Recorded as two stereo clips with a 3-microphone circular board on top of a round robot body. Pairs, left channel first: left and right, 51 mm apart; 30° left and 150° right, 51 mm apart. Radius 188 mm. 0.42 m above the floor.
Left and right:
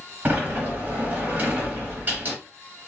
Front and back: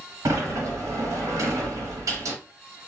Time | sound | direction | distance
0.2 | a sliding door | 145° right | 0.8 m